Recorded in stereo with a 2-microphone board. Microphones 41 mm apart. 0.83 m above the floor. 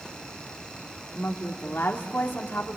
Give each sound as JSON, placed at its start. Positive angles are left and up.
{"t": 1.1, "sound": "a woman speaking", "side_deg": 70, "distance_m": 2.0}